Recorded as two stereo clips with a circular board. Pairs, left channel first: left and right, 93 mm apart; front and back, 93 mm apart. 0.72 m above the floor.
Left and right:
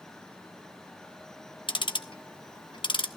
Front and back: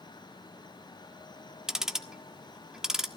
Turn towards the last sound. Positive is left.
turn(degrees=95)